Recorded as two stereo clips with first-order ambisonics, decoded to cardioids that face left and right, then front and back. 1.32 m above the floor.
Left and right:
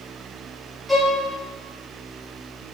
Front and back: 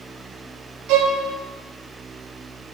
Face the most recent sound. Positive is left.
turn(degrees=-175)